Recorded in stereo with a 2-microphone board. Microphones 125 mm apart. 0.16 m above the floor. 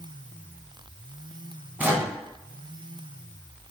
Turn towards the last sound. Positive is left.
turn(degrees=-15)  # may be behind; listen again after turning